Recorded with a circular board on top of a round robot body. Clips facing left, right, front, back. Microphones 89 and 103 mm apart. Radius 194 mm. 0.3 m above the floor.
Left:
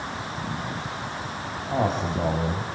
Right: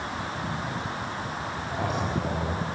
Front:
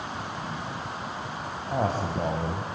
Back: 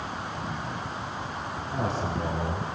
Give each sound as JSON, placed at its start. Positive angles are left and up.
{"t": 1.7, "sound": "a man speaking", "azimuth_deg": 40, "distance_m": 4.0}